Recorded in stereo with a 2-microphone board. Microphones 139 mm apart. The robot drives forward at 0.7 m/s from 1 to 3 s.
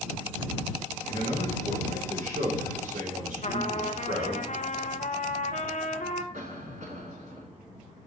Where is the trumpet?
60° left (ahead or behind), 0.9 m.